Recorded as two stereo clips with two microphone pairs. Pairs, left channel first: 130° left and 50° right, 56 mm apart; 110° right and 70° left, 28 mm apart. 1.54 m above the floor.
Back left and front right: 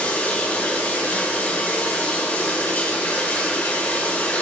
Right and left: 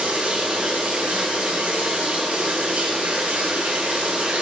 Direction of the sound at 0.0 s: 70° left.